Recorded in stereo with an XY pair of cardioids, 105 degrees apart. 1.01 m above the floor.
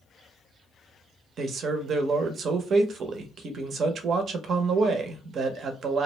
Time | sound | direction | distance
1.4 | a man speaking | 60° right | 0.6 m